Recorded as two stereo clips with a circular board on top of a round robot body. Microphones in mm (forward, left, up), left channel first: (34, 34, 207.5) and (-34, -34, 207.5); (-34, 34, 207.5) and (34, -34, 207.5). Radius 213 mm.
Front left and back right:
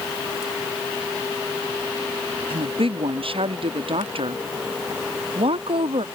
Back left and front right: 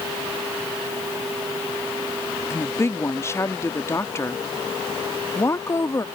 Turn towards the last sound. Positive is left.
turn(degrees=-160)